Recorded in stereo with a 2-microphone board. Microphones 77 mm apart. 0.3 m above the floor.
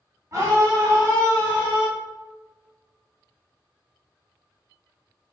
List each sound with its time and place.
0.3 s a scream: 40° right (ahead or behind), 1.4 m